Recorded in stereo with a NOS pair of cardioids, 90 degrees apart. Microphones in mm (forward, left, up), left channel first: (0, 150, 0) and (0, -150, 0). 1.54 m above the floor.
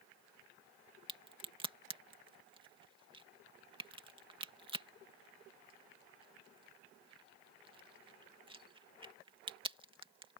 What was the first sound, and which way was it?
A crack, 15° right.